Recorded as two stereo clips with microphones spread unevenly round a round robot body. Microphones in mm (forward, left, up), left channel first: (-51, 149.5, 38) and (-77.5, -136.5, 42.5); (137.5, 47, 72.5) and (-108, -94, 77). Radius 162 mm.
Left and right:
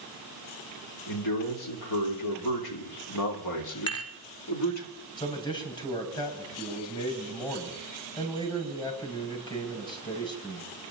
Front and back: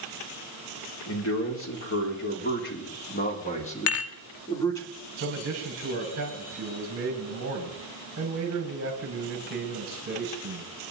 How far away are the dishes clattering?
About 1.3 m.